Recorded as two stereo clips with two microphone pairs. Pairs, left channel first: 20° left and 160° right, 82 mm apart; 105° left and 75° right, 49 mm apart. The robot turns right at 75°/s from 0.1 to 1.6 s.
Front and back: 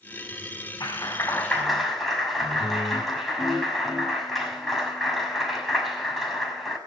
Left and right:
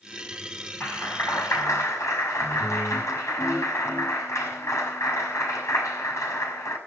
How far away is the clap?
About 5.5 m.